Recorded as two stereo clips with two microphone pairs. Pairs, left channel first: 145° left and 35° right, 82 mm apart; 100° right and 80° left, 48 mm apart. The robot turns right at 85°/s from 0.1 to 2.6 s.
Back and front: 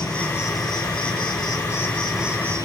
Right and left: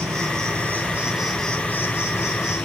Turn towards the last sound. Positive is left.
turn(degrees=-85)